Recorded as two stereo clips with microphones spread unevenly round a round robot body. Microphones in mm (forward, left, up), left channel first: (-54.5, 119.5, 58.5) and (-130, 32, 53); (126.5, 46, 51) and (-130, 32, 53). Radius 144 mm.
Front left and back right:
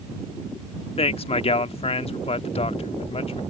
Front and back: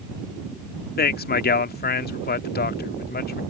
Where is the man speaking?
45° left.